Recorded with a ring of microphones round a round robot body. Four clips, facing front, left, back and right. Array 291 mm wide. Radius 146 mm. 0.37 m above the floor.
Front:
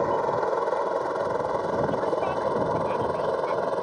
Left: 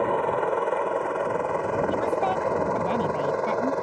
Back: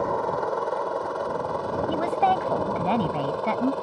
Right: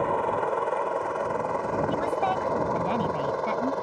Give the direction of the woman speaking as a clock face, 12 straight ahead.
6 o'clock.